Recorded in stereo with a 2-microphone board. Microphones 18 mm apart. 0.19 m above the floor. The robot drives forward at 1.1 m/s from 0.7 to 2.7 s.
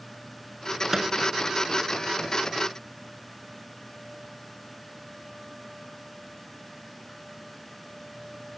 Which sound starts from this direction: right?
A microwave, at 0.9 s.